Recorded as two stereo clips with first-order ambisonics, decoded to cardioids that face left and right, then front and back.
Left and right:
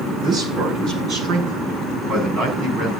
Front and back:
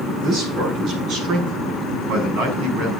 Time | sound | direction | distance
0.2 | a man speaking | 145° right | 9 m